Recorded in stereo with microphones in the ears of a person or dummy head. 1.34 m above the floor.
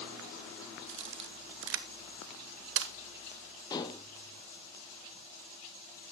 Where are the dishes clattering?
20° left (ahead or behind), 1.1 m.